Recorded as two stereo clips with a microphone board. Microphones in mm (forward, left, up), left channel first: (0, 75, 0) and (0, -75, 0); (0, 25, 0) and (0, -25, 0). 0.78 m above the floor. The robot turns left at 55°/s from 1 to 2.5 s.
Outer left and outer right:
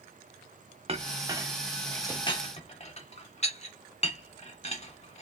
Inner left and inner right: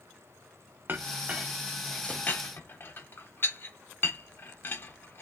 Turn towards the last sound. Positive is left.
turn(degrees=45)  # may be behind; listen again after turning